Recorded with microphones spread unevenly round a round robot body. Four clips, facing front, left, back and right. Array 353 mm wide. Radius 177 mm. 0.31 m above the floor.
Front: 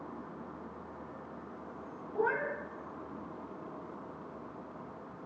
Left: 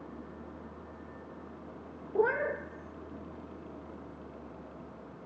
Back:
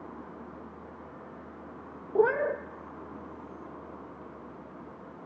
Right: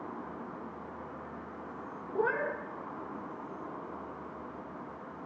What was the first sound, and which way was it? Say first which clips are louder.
A cat meowing: left 3 dB, back 8 dB; 165° left.